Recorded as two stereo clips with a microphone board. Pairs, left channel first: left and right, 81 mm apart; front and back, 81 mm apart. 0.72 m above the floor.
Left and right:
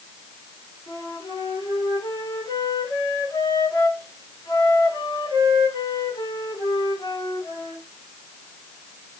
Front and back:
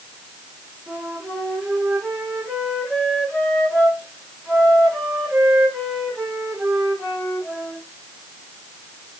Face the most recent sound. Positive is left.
turn(degrees=85)